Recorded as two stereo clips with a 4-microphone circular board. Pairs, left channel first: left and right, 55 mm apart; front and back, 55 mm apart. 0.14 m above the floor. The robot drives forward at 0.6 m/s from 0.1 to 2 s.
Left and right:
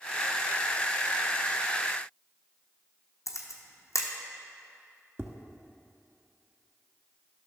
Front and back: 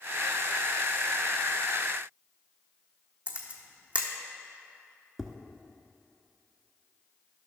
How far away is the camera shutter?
About 1.1 m.